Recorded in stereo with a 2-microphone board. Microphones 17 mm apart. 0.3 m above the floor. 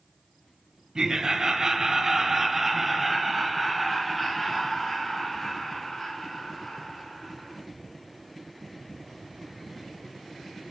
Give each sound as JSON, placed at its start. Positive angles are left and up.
{"t": 0.9, "sound": "laughter", "side_deg": -45, "distance_m": 1.2}